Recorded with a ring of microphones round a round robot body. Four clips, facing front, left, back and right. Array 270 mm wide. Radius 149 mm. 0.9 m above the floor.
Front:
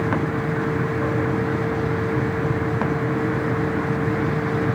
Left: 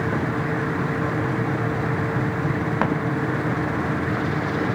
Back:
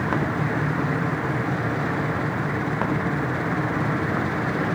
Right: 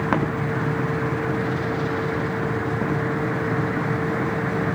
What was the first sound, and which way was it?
Only background noise.